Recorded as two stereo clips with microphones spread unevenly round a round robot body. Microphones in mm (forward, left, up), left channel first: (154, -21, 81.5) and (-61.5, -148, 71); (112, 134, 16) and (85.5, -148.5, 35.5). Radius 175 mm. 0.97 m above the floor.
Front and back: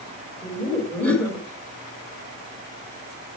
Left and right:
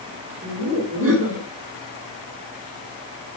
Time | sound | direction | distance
0.4 | laughter | 55° right | 6.5 m